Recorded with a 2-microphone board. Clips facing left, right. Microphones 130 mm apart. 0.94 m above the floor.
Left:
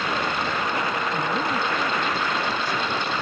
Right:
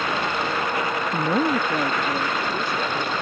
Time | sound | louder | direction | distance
1.1 | a woman speaking | right 4 dB | 40° right (ahead or behind) | ?